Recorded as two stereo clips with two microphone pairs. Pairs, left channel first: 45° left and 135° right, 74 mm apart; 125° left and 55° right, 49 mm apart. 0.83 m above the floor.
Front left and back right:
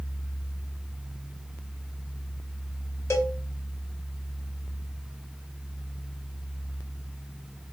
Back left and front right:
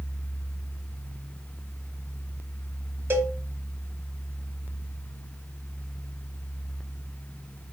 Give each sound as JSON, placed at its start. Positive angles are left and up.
{"t": 3.1, "sound": "a cowbell", "azimuth_deg": -10, "distance_m": 0.7}